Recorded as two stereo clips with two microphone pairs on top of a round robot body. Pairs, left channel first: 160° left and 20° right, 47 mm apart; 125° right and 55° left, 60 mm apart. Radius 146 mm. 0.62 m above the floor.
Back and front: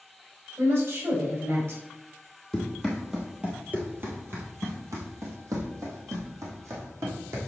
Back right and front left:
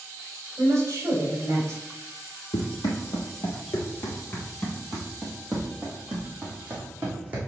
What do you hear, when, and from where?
0.6 s a woman speaking: 5° left, 3.5 m
2.5 s running footsteps: 115° right, 1.4 m; by 7.4 s 15° right, 2.5 m